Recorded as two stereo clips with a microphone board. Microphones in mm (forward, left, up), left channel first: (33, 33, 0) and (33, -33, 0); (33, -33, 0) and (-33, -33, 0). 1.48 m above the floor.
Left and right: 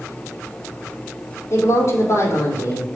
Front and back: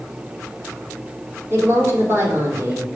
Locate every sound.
1.5 s a woman speaking: 125° left, 4 m